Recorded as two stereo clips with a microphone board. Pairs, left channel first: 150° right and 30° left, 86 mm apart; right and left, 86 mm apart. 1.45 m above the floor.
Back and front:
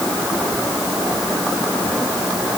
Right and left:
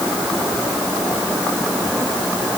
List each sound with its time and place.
Only background noise.